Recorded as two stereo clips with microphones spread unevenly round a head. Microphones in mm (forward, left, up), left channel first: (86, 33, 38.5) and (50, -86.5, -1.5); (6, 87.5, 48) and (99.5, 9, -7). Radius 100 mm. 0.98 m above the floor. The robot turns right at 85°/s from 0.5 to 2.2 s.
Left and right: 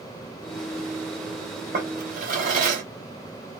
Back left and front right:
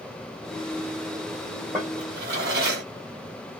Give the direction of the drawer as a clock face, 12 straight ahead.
5 o'clock.